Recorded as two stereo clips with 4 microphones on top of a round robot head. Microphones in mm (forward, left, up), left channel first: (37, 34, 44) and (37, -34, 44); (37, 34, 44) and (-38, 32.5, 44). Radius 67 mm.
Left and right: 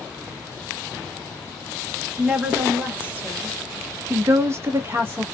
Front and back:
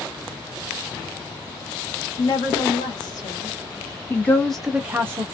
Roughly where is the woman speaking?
Ahead.